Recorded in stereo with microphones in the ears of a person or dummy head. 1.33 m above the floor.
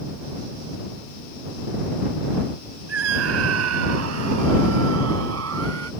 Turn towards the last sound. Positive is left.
turn(degrees=-90)